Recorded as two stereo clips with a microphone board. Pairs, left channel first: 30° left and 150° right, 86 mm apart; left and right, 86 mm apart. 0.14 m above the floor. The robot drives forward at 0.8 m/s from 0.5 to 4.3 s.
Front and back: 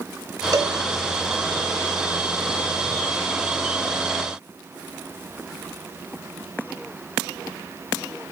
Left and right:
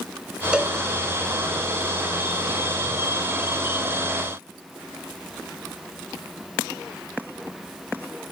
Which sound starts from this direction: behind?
A cowbell, at 0.5 s.